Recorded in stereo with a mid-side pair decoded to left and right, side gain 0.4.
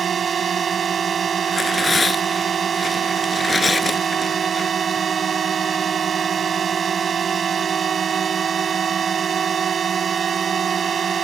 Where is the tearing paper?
30° left.